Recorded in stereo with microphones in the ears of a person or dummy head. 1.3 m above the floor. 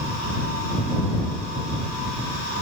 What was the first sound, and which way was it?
Only background noise.